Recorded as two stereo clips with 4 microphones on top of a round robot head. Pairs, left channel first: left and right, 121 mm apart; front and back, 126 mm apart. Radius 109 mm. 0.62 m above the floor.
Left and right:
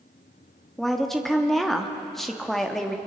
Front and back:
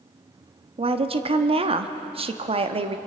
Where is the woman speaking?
175° left, 1.2 m.